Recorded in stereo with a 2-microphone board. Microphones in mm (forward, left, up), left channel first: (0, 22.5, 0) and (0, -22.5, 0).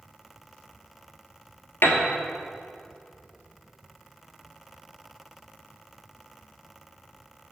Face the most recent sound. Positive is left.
turn(degrees=60)  # may be behind; listen again after turning